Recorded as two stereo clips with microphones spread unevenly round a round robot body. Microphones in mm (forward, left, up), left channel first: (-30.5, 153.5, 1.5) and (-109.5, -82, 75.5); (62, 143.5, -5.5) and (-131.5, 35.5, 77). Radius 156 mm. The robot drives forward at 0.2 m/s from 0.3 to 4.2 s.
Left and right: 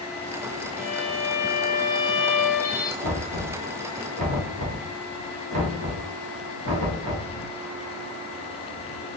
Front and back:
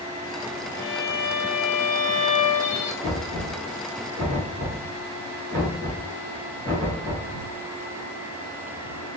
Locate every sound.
0.8 s a violin: 65° left, 1.0 m; by 2.9 s 90° left, 0.9 m
3.0 s knocking: 85° right, 1.0 m; by 7.3 s 100° right, 1.0 m